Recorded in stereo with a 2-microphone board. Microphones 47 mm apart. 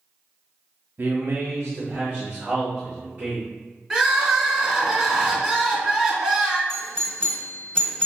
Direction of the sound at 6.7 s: 20° left (ahead or behind).